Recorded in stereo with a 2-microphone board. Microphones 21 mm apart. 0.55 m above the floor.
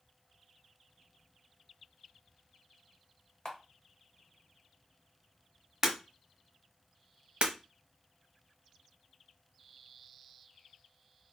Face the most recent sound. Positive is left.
turn(degrees=-70)  # may be behind; listen again after turning